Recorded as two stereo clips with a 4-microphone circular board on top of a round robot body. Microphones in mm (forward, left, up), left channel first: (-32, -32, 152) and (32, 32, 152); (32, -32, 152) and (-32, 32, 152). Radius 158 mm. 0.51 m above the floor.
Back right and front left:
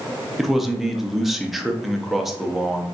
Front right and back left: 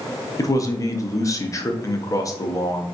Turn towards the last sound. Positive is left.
turn(degrees=-45)